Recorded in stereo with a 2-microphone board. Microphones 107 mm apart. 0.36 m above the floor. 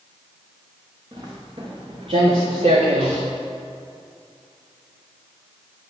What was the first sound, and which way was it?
Footsteps, 50° right (ahead or behind).